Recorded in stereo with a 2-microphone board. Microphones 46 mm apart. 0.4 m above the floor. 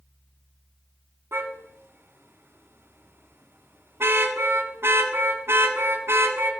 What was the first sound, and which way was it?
A car horn, 65° right (ahead or behind).